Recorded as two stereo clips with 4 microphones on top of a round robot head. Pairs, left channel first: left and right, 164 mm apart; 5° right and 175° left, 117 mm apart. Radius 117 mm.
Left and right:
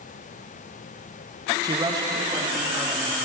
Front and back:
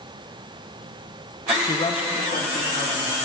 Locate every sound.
1.6 s a man speaking: 45° right, 0.9 m; by 3.1 s 20° right, 2.5 m